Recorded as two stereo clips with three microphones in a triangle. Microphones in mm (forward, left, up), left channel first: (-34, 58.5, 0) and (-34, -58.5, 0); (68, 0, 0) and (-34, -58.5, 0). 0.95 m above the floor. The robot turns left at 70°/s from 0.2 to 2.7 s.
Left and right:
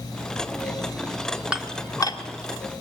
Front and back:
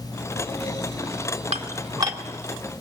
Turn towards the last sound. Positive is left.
turn(degrees=105)